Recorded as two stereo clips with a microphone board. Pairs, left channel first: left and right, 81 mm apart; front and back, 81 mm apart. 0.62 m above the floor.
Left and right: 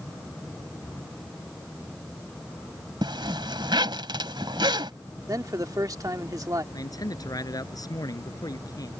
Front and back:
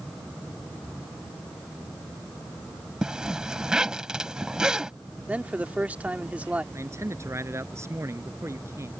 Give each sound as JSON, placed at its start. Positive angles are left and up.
{"t": 3.0, "sound": "a zipper", "azimuth_deg": -100}
{"t": 5.3, "sound": "a man speaking", "azimuth_deg": -115}
{"t": 6.7, "sound": "a man speaking", "azimuth_deg": 130}